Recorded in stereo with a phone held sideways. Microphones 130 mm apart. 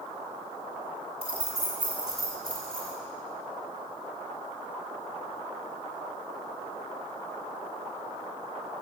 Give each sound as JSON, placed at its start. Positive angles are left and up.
{"t": 1.2, "sound": "keys jangling", "side_deg": -45, "distance_m": 1.2}